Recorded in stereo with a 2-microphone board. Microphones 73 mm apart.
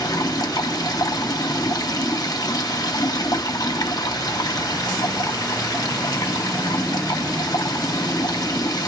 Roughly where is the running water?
Left.